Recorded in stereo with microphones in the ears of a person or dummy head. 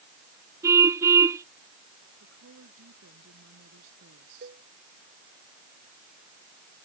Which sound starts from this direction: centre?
A car horn, at 0.6 s.